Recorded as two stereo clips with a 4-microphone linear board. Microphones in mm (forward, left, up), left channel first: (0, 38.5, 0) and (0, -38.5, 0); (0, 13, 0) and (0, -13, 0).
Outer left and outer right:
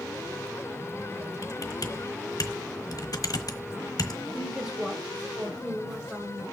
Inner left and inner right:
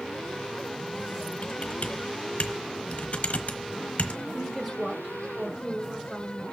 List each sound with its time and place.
1.4 s typing on a keyboard: 55° left (ahead or behind), 1.2 m
4.3 s a woman speaking: 15° right (ahead or behind), 1.5 m